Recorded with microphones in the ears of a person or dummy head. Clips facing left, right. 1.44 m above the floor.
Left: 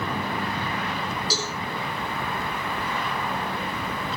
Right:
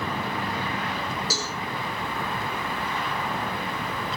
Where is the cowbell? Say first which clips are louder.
Left 2 dB; 45° right (ahead or behind), 5 m.